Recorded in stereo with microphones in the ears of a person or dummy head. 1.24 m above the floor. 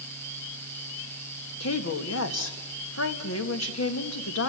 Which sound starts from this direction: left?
A woman speaking, at 1.6 s.